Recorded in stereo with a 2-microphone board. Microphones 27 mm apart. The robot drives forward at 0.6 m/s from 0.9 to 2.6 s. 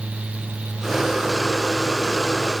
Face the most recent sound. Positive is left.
No sound to turn to.